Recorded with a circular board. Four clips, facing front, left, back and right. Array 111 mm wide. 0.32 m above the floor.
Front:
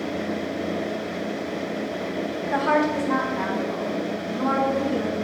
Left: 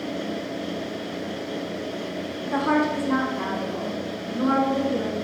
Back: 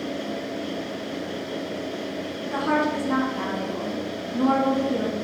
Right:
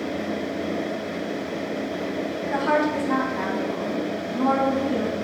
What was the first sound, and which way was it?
A woman speaking, 35° right.